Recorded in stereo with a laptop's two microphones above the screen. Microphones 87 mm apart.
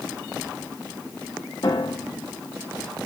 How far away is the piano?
About 1.1 m.